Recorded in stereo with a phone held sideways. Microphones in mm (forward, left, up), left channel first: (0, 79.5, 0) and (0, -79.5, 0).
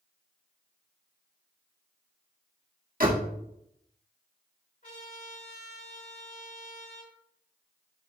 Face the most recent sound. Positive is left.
turn(degrees=55)  # may be behind; listen again after turning